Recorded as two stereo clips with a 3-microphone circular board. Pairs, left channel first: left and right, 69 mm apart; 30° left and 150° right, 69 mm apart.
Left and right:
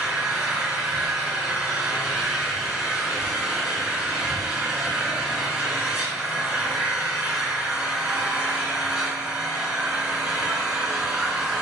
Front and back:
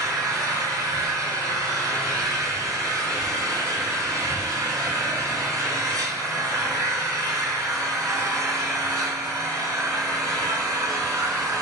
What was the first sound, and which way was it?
An engine running, 170° right.